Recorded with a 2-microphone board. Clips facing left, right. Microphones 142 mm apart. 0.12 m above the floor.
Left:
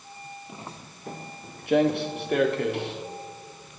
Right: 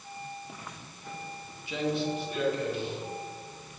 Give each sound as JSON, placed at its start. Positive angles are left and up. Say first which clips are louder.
{"t": 0.5, "sound": "footsteps", "louder": "left 4 dB", "side_deg": 25, "distance_m": 1.7}